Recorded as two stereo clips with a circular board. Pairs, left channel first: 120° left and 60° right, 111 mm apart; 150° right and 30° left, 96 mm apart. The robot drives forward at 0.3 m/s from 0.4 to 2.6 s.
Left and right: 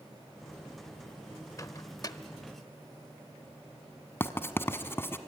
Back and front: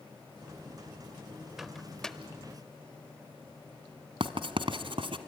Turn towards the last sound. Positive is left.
turn(degrees=50)